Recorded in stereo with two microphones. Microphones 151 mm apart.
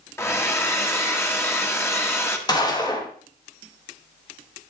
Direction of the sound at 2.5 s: 25° left (ahead or behind).